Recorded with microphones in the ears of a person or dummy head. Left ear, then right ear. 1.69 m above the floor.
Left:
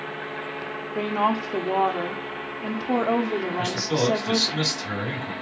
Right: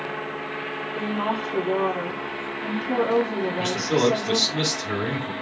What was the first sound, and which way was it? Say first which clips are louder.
A woman speaking: left 4 dB; 30° left (ahead or behind).